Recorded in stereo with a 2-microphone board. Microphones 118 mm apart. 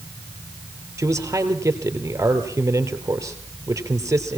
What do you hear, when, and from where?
1.0 s a man speaking: 25° right (ahead or behind), 2.5 m